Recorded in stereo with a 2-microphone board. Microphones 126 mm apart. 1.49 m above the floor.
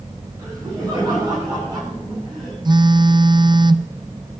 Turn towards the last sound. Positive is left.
turn(degrees=-35)  # may be behind; listen again after turning